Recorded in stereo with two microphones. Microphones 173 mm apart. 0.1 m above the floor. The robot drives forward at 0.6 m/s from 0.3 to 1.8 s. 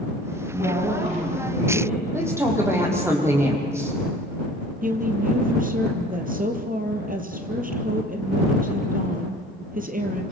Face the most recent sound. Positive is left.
turn(degrees=-55)  # may be behind; listen again after turning